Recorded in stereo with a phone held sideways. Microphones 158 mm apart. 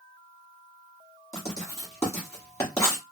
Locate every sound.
1.3 s writing: 20° left (ahead or behind), 1.3 m